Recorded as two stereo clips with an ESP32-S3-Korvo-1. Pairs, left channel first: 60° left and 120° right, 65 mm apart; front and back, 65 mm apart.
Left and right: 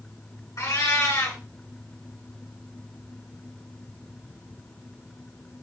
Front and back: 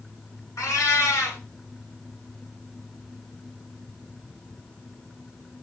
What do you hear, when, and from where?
0.6 s a cat meowing: 35° left, 1.9 m